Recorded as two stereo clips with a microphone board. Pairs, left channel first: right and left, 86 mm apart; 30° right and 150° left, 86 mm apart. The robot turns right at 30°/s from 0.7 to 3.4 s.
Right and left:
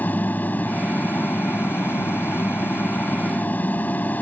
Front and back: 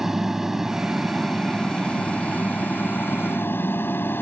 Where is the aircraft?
130° right; by 4.2 s 50° right.